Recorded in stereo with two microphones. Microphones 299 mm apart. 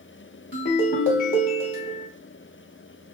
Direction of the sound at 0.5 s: 40° left (ahead or behind).